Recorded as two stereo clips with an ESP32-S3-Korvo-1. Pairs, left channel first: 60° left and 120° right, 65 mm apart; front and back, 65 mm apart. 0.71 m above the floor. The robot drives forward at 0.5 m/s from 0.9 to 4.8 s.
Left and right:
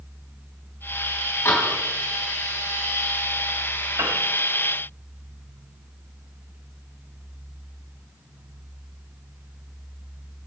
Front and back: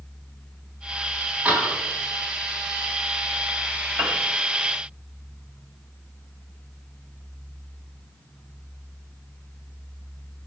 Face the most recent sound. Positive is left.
turn(degrees=-140)